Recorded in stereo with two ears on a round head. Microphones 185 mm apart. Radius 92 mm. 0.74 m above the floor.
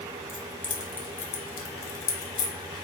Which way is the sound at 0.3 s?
5° right (ahead or behind).